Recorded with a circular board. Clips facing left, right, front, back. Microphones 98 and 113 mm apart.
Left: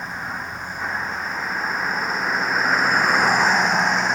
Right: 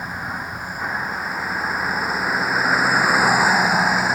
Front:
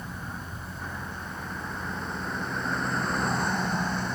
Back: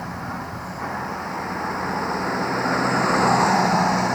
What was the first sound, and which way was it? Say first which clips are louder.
A vehicle: right 1 dB, back 8 dB; 175° right.